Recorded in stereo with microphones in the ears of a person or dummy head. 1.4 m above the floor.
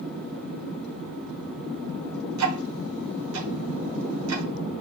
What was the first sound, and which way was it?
Ticking, 80° right.